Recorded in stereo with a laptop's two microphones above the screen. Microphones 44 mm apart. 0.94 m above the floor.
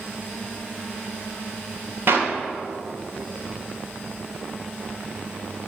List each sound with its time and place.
2.1 s a clap: 60° right (ahead or behind), 2 m